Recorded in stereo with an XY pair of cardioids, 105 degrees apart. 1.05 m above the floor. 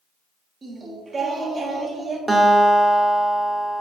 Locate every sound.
0.6 s singing: 35° right, 1.7 m
2.3 s a guitar: 15° right, 1.7 m